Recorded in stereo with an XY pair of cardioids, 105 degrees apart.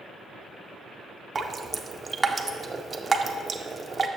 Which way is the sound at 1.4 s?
25° right.